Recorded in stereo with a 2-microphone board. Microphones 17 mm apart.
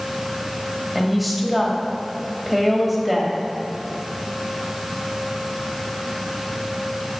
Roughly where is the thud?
No thud in this recording.